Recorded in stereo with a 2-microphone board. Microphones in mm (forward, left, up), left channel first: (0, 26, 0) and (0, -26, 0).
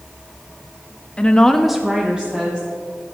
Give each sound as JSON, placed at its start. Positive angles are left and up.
{"t": 1.2, "sound": "a woman speaking", "side_deg": 20, "distance_m": 0.8}